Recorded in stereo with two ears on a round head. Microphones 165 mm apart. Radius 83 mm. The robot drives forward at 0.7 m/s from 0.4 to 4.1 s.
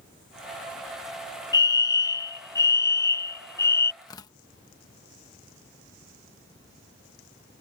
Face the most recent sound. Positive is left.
turn(degrees=20)  # may be behind; listen again after turning